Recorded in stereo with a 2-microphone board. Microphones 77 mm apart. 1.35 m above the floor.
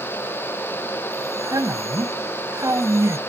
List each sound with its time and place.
1.1 s a man speaking: 40° right (ahead or behind)